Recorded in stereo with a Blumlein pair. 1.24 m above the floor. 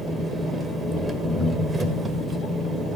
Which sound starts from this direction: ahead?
An engine running, at 0.0 s.